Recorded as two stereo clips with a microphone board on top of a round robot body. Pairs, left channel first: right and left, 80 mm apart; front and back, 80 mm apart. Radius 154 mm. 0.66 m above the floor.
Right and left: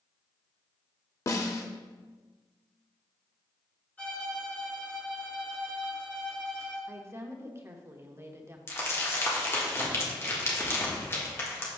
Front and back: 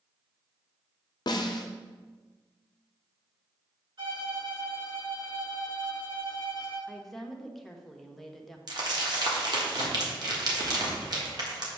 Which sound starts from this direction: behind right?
Crumpling, at 8.7 s.